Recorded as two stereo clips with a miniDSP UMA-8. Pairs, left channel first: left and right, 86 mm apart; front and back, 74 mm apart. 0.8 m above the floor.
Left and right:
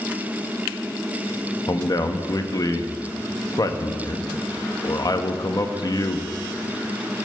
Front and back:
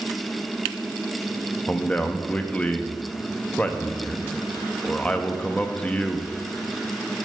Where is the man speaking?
70° left, 0.7 m.